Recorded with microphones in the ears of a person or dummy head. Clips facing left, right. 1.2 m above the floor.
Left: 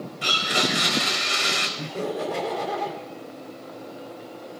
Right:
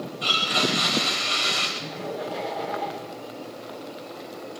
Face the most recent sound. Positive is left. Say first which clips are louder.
# left 6 dB
turn(degrees=70)  # may be behind; listen again after turning